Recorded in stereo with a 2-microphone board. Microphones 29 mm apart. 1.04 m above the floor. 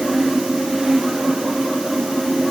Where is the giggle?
No giggle in this recording.